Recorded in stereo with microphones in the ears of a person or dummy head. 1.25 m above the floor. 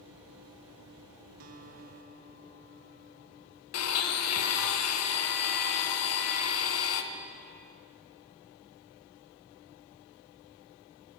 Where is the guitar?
45° right (ahead or behind), 0.6 m.